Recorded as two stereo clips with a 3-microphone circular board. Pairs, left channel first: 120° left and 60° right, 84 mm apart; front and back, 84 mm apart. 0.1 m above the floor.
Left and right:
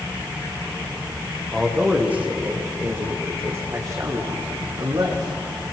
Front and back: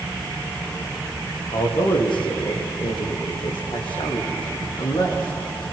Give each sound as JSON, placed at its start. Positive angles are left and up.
{"t": 1.5, "sound": "a man speaking", "azimuth_deg": 20, "distance_m": 5.5}